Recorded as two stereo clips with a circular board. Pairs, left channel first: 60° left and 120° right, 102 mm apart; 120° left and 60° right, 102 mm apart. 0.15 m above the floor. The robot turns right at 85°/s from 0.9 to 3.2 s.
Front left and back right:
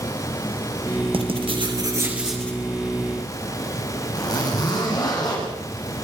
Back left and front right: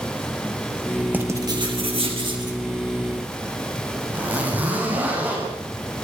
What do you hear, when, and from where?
1.1 s writing: 135° right, 4 m; by 2.6 s 10° right, 4 m
4.1 s a zipper: 10° left, 7 m